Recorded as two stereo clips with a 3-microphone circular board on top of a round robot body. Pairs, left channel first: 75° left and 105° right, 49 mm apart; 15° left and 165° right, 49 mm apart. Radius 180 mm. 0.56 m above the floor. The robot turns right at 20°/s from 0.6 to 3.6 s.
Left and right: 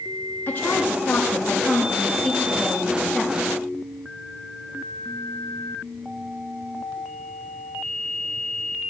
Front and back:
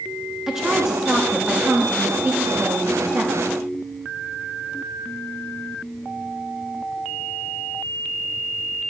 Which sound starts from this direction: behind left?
A woman speaking, at 0.5 s.